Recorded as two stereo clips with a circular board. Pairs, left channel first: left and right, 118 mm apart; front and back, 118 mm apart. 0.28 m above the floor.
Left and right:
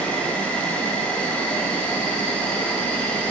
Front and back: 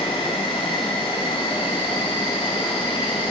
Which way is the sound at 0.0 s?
15° left.